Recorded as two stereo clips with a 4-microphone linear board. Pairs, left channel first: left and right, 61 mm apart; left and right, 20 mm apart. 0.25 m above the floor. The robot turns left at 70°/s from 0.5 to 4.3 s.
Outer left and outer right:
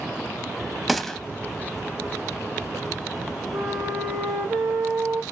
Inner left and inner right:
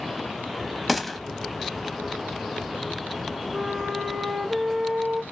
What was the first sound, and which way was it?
A gunshot, centre (ahead or behind).